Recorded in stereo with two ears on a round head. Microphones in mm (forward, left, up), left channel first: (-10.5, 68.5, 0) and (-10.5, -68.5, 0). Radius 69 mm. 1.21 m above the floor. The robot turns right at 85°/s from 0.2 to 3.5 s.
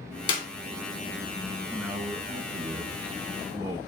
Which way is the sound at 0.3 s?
30° left (ahead or behind).